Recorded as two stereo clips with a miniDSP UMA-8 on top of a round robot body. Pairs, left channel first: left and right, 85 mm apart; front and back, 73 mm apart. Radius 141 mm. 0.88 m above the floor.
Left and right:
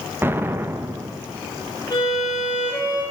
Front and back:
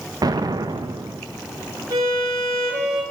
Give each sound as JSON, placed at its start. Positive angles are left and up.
{"t": 0.2, "sound": "an explosion", "azimuth_deg": -155, "distance_m": 0.9}
{"t": 1.9, "sound": "a violin", "azimuth_deg": 140, "distance_m": 5.5}